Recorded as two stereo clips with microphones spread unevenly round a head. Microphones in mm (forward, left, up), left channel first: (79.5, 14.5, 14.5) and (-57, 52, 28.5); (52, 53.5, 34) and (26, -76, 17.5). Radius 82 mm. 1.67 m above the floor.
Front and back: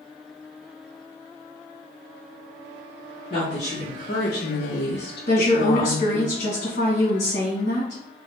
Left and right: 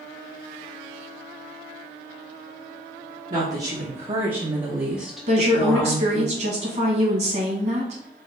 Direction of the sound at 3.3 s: 70° right.